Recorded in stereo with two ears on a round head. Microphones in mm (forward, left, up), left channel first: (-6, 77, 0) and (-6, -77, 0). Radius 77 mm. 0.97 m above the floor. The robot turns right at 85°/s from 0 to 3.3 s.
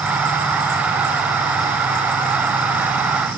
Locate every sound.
Only background noise.